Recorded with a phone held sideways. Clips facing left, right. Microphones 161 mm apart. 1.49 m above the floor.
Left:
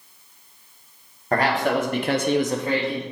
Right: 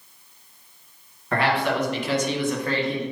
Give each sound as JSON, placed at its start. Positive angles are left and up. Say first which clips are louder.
{"t": 1.3, "sound": "a man speaking", "louder": "left 2 dB", "side_deg": 40, "distance_m": 1.4}